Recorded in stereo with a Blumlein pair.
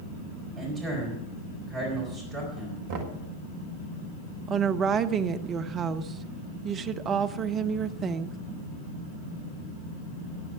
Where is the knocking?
45° right, 1.8 m.